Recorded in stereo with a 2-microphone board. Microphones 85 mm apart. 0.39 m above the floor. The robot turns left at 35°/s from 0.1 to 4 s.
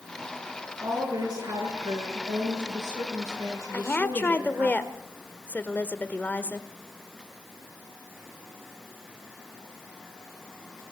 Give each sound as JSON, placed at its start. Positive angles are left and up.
{"t": 0.8, "sound": "a woman speaking", "azimuth_deg": -35, "distance_m": 6.5}
{"t": 3.7, "sound": "a woman speaking", "side_deg": 25, "distance_m": 1.1}